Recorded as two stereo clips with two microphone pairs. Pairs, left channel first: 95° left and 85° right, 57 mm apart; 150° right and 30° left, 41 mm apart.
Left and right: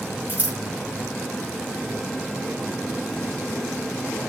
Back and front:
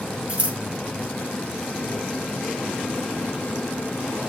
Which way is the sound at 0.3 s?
25° right.